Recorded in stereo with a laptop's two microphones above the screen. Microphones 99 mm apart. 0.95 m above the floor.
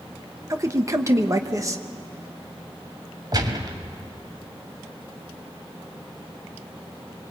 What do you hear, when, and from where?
0.5 s a man speaking: 30° right (ahead or behind), 1.1 m
3.3 s a gunshot: 45° right (ahead or behind), 2 m